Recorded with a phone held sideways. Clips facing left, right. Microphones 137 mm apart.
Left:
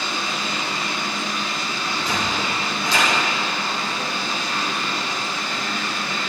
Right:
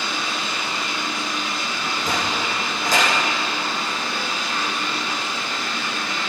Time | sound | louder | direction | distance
0.0 | running water | even | 40° left (ahead or behind) | 10 m
1.8 | a sliding door | even | 50° right (ahead or behind) | 9.5 m